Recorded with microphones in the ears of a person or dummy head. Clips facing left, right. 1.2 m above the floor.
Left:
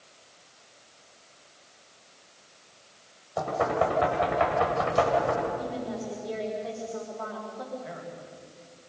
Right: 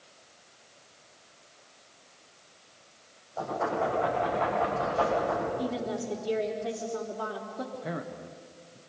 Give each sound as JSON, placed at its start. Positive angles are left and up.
{"t": 3.4, "sound": "knocking", "side_deg": 90, "distance_m": 6.0}
{"t": 5.6, "sound": "a woman speaking", "side_deg": -40, "distance_m": 3.5}
{"t": 7.7, "sound": "a man speaking", "side_deg": -55, "distance_m": 1.2}